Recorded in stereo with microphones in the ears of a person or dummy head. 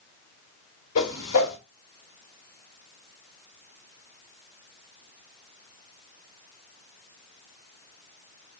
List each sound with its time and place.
0.9 s a whoosh: 40° left (ahead or behind), 4 m